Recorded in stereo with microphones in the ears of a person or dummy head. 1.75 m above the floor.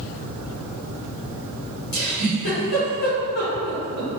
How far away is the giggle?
About 0.8 m.